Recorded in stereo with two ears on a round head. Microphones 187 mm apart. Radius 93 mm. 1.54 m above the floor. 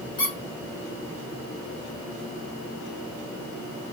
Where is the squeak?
20° left (ahead or behind), 1.1 m.